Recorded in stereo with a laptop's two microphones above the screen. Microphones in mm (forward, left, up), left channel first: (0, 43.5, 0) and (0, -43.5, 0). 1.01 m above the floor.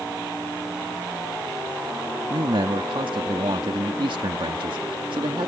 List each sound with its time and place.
2.3 s a man speaking: 70° right (ahead or behind)